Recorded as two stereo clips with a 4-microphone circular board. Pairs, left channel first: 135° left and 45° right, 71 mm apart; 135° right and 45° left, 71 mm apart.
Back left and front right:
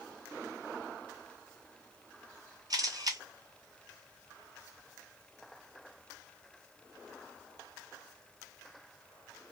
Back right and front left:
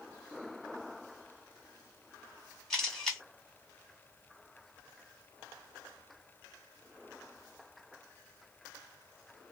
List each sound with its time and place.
2.7 s a camera shutter: 50° right, 1.3 m